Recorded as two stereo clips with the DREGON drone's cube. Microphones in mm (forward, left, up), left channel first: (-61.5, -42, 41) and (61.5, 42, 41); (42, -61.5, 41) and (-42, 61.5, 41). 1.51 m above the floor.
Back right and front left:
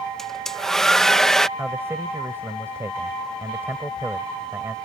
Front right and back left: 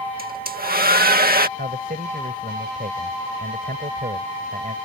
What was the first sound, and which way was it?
A hair dryer, 125° left.